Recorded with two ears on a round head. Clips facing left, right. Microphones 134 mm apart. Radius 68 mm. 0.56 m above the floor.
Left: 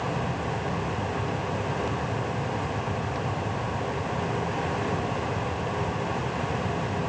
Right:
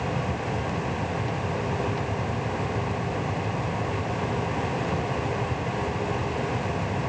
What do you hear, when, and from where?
Only background noise.